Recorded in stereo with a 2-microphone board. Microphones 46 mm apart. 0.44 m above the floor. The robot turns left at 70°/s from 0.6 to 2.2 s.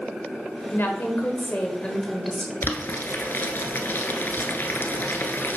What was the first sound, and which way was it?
A woman speaking, 110° left.